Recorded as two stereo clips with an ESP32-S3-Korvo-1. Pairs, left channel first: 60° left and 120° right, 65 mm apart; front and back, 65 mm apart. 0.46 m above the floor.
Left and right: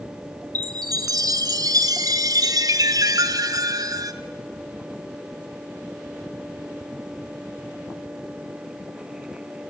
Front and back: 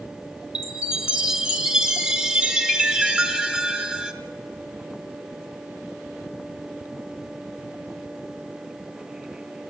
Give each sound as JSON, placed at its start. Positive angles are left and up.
{"t": 0.6, "sound": "a chime", "azimuth_deg": -105, "distance_m": 1.3}